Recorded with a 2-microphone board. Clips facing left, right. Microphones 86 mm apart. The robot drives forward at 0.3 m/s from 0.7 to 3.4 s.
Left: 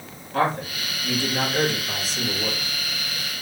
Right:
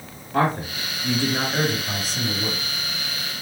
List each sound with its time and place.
0.3 s a man speaking: 25° right (ahead or behind), 1.2 m